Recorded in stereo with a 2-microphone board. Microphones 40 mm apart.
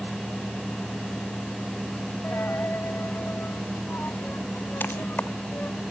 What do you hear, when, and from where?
2.2 s a dropped coin: 55° left (ahead or behind)